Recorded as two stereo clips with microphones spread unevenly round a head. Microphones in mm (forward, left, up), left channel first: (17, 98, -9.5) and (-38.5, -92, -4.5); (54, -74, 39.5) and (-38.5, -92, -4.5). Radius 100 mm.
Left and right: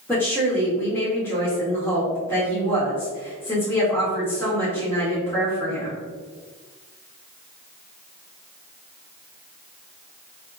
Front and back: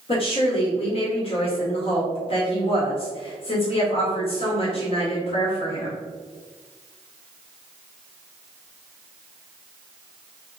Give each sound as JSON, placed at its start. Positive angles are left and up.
{"t": 0.1, "sound": "a woman speaking", "azimuth_deg": -5, "distance_m": 1.9}